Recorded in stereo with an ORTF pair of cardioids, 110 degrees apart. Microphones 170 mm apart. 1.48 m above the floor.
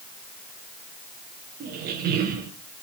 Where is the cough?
No cough in this recording.